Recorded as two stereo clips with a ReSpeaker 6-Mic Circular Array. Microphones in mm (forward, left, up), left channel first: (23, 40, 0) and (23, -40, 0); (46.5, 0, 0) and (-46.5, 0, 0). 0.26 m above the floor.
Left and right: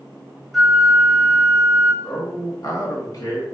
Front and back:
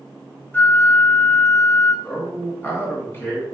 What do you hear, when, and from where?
0.5 s a flute: 5° left, 0.7 m
2.0 s a man speaking: 60° left, 2.0 m